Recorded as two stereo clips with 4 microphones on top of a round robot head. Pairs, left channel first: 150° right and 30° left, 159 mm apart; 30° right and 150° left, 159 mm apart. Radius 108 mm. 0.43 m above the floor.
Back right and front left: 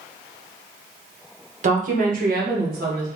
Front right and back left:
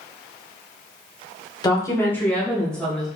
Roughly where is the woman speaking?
Ahead left.